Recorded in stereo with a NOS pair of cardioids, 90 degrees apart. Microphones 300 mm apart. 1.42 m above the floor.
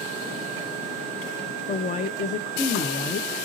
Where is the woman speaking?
25° left, 0.6 m.